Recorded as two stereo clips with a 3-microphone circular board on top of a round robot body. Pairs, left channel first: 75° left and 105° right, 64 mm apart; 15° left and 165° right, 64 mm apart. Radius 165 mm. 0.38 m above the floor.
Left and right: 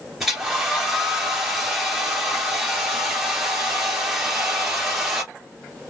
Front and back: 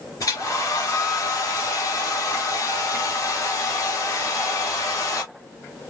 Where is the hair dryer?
20° right, 3 m.